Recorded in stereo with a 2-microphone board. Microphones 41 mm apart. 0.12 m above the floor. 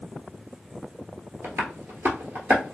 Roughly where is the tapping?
Right.